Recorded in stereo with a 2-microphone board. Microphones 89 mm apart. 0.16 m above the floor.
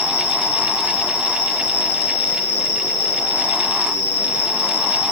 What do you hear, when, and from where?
0.0 s an insect: 40° left (ahead or behind), 3.5 m